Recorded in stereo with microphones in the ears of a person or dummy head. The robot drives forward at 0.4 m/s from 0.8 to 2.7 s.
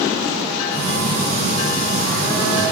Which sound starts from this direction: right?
A phone buzzing, at 0.7 s.